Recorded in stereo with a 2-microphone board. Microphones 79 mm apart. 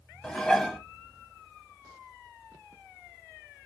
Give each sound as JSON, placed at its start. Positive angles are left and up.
{"t": 0.2, "sound": "dishes clattering", "side_deg": 10, "distance_m": 0.7}